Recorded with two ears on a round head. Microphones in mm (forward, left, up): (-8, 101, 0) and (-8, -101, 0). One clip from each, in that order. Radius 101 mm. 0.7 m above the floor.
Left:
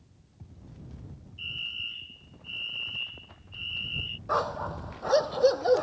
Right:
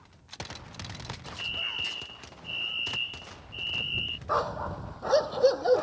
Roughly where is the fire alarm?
Centre.